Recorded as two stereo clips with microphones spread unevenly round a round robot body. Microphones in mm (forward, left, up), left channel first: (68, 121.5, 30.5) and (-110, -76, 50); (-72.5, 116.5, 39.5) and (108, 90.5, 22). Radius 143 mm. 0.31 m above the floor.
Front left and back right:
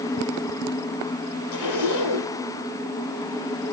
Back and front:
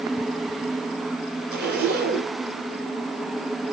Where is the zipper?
25° left, 2 m.